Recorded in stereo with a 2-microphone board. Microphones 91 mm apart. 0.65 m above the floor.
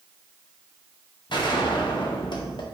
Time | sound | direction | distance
1.3 | a gunshot | 55° left (ahead or behind) | 0.7 m